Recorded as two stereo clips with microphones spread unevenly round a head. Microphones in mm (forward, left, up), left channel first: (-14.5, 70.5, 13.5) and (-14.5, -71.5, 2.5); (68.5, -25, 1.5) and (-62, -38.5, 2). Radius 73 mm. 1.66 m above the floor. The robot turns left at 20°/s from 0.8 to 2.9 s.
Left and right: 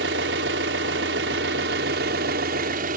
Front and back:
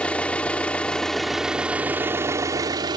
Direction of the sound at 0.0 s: 75° right.